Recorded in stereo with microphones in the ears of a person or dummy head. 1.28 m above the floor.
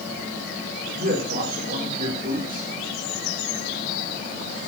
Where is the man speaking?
35° right (ahead or behind), 4 m.